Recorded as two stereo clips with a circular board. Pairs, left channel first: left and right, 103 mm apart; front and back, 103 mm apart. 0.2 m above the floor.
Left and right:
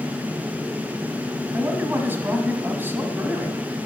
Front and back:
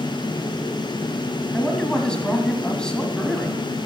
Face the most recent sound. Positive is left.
turn(degrees=-65)